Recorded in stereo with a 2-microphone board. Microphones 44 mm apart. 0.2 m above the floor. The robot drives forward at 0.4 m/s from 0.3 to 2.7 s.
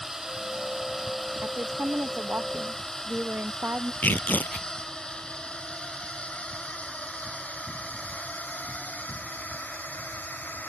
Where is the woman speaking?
45° right (ahead or behind).